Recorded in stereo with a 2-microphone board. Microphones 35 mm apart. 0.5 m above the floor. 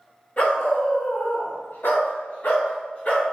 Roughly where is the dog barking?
Left.